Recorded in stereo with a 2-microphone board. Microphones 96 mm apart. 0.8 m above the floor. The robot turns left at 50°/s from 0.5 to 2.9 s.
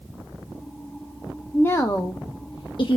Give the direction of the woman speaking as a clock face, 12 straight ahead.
7 o'clock.